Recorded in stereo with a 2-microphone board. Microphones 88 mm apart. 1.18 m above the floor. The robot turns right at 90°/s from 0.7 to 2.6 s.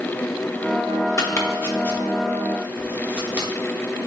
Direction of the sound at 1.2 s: 35° left (ahead or behind).